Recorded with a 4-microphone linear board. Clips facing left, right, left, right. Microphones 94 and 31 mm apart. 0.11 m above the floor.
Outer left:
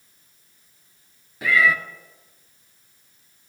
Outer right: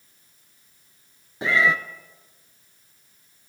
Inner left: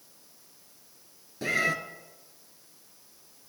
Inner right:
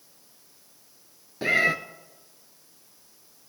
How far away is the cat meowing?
About 0.7 m.